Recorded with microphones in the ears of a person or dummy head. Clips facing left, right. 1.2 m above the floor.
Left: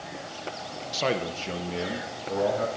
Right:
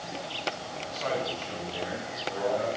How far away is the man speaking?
About 1.1 m.